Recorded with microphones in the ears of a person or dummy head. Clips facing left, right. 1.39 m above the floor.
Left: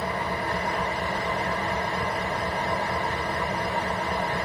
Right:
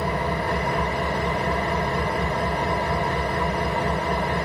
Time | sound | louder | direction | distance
0.0 | an engine running | right 4 dB | 70° right (ahead or behind) | 2.5 m